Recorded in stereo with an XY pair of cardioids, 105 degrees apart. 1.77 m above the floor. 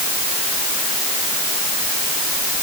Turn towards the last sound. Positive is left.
No sound to turn to.